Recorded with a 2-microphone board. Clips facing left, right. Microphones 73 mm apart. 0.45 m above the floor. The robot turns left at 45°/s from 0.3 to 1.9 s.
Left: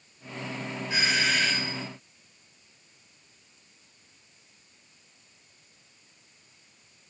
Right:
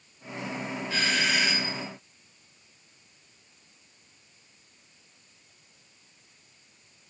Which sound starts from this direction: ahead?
A doorbell, at 0.9 s.